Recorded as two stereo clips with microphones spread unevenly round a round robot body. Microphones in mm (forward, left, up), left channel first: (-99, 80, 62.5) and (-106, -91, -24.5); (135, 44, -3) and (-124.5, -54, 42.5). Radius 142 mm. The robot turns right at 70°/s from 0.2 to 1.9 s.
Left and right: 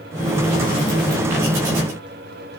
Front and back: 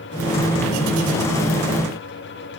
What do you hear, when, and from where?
Only background noise.